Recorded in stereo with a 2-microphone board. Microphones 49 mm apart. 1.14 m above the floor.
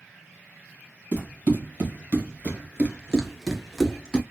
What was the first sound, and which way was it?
Running footsteps, 35° right (ahead or behind).